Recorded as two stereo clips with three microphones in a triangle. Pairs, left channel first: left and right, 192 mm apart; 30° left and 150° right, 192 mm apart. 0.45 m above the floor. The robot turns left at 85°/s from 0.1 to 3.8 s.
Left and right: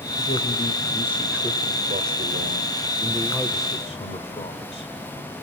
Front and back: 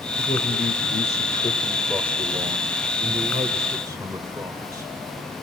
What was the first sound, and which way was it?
A man speaking, 90° left.